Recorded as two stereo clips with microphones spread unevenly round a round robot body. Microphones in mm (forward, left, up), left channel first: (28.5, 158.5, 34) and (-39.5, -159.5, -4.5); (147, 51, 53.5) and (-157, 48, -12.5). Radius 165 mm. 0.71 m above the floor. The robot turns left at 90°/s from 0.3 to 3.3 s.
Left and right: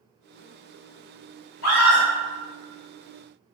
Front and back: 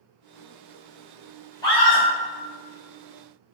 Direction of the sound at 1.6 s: 90° left.